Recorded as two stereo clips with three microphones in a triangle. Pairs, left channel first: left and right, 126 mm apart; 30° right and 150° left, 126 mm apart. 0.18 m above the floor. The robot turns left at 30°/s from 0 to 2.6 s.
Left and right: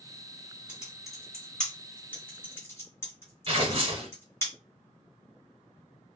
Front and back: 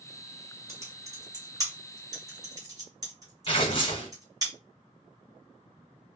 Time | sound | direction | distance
0.7 | typing on a keyboard | 165° right | 1.7 m
3.5 | tearing paper | 65° right | 1.0 m